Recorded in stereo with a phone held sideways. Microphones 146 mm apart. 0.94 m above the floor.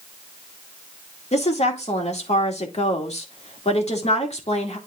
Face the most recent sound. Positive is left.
turn(degrees=50)  # may be behind; listen again after turning